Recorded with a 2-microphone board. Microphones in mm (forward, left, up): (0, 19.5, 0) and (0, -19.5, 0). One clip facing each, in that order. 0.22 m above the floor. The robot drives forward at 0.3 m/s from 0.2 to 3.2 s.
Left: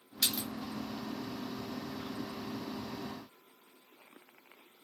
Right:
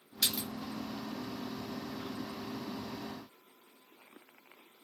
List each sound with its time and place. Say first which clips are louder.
0.2 s a splash: even; centre (ahead or behind), 1.0 m